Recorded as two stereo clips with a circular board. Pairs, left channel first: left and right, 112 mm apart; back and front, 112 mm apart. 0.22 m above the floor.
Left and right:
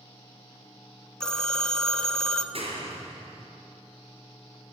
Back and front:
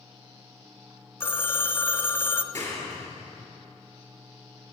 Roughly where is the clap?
Behind right.